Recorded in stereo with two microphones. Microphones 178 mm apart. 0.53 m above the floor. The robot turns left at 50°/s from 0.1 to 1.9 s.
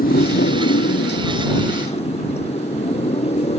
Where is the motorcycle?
125° left; by 3.6 s 35° left.